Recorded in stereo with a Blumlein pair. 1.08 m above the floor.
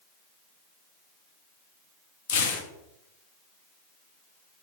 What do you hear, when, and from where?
2.3 s tearing paper: 60° left, 0.6 m